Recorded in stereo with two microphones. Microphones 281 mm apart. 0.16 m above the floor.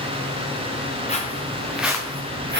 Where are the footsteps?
25° left (ahead or behind), 1.2 m; by 2.6 s 40° right (ahead or behind), 0.9 m.